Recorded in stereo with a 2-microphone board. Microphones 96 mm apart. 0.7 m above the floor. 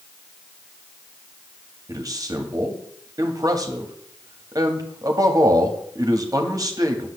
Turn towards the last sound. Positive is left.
turn(degrees=-40)  # may be behind; listen again after turning